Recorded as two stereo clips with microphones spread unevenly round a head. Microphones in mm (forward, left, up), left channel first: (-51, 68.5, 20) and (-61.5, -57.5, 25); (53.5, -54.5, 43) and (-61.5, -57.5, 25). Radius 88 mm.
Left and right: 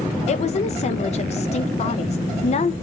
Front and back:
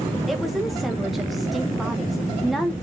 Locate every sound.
0.3 s a woman speaking: 100° left, 0.6 m